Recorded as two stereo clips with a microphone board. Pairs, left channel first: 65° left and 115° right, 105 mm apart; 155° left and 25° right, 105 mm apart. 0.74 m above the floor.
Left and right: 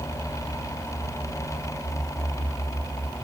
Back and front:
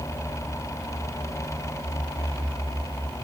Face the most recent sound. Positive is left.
No sound to turn to.